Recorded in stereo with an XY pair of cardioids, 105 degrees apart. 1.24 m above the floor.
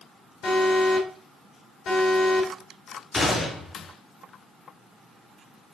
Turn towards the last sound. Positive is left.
turn(degrees=30)